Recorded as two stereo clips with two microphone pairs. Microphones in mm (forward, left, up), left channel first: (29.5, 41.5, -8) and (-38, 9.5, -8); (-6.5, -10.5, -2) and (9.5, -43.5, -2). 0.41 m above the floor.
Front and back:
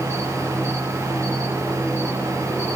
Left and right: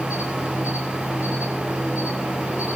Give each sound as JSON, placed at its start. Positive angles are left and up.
{"t": 0.0, "sound": "an insect", "azimuth_deg": -100, "distance_m": 7.5}